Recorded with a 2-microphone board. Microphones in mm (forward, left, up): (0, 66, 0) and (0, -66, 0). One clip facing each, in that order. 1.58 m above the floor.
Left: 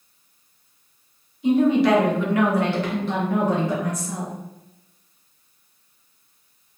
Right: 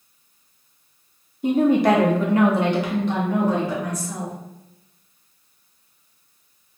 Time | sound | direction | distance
1.4 | a woman speaking | 45° right (ahead or behind) | 0.9 m